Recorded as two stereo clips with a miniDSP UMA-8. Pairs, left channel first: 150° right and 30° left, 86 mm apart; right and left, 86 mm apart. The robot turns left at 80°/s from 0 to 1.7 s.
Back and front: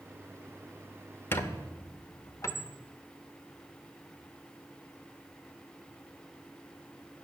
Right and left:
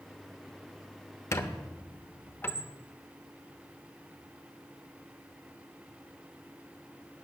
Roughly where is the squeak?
Right.